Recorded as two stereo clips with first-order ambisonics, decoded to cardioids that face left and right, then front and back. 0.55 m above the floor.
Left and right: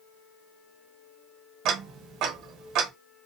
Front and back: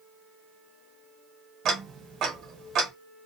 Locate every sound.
1.6 s ticking: 130° right, 0.8 m